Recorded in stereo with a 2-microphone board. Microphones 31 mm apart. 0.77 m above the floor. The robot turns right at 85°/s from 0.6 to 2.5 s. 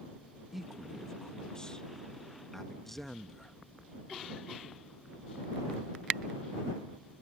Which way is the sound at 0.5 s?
Centre (ahead or behind).